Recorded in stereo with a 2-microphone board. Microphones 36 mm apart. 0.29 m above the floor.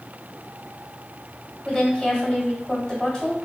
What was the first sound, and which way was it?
A woman speaking, 20° left (ahead or behind).